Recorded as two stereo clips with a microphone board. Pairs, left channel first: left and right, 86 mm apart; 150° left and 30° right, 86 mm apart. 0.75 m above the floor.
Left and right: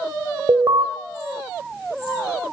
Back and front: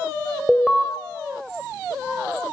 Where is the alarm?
125° right, 3 m.